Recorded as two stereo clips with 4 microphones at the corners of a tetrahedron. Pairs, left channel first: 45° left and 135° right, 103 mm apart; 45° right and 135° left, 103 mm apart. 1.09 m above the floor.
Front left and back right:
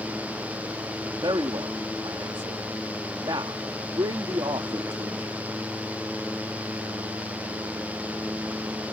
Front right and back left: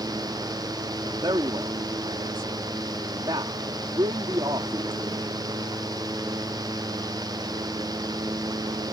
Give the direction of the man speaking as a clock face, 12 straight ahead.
6 o'clock.